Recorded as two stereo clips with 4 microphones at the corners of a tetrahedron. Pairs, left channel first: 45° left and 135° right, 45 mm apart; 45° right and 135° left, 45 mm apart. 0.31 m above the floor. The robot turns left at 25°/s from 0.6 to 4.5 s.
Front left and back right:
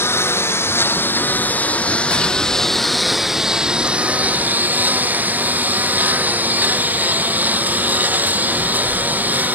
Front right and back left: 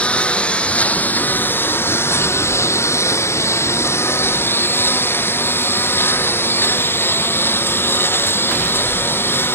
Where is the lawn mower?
15° left; by 9.6 s 80° right.